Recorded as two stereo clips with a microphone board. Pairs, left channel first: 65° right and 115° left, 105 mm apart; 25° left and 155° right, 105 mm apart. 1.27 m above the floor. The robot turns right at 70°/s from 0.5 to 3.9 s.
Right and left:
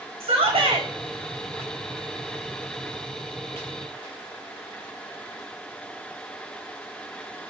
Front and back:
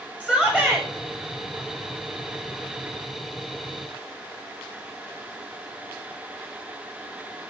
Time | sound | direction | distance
0.2 | a shout | 100° left | 0.8 m